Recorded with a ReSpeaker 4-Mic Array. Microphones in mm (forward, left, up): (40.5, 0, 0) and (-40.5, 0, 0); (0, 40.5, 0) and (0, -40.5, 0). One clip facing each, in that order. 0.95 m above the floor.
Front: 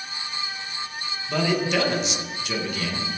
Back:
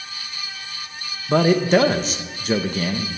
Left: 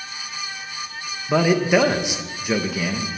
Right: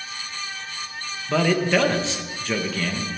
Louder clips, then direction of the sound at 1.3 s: Back 7 dB, left 3 dB; 155° left.